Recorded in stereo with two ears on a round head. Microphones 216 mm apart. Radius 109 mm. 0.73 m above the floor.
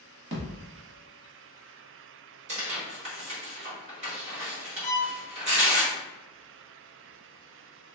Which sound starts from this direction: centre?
A violin, at 4.8 s.